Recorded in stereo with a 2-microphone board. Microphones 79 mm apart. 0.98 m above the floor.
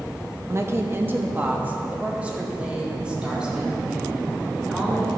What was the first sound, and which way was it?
A woman speaking, 40° right (ahead or behind).